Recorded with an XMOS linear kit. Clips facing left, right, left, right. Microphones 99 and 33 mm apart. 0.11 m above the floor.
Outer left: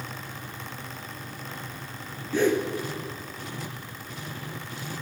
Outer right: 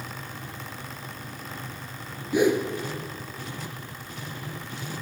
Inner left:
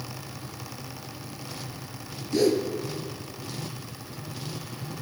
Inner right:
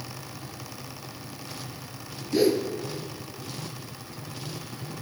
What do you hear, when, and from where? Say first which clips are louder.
2.3 s a whoosh: outer right 2 dB, even; 15° right (ahead or behind), 1.0 m